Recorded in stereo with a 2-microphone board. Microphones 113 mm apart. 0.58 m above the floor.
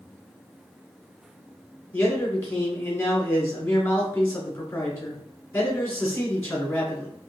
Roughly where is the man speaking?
Centre.